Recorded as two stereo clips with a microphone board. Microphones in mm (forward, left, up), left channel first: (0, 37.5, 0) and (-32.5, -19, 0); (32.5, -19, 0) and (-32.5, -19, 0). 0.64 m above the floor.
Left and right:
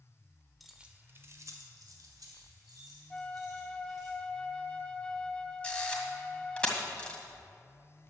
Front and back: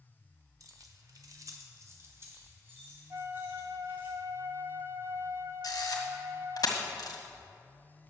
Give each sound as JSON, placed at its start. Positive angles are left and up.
{"t": 0.6, "sound": "keys jangling", "azimuth_deg": 150, "distance_m": 1.2}
{"t": 3.1, "sound": "a flute", "azimuth_deg": 135, "distance_m": 0.5}
{"t": 5.6, "sound": "a camera shutter", "azimuth_deg": -10, "distance_m": 2.0}